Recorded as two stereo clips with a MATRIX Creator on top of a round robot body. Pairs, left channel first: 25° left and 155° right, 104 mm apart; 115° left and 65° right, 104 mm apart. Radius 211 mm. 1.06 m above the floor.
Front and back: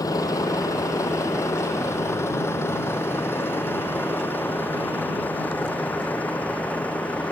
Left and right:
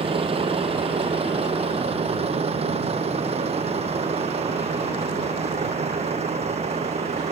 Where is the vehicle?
35° right; by 7.3 s 55° right.